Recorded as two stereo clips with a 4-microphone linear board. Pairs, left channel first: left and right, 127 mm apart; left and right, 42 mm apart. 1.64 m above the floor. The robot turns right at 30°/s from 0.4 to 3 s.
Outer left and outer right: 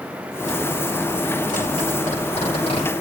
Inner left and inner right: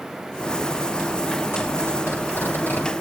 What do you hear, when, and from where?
1.5 s a zipper: 85° left, 8 m; by 2.9 s 45° left (ahead or behind), 8 m